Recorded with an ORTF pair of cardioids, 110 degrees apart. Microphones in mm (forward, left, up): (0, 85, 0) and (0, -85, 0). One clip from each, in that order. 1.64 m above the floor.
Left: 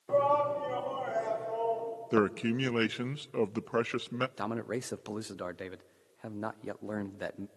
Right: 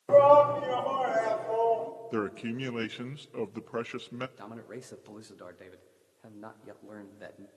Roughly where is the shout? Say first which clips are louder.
Right 9 dB; ahead right.